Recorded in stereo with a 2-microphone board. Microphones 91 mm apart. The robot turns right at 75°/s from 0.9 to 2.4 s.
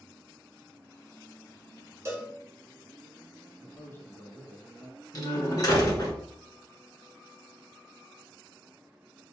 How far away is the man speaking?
About 1.1 m.